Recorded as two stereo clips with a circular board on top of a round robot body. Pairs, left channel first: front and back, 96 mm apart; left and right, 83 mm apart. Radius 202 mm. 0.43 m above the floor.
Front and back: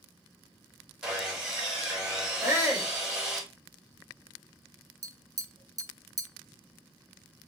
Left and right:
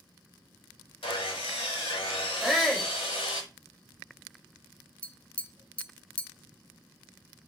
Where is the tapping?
155° left, 0.5 m.